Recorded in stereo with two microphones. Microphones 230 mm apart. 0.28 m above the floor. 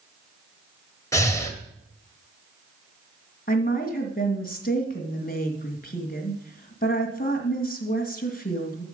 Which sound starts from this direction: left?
A woman speaking, at 3.5 s.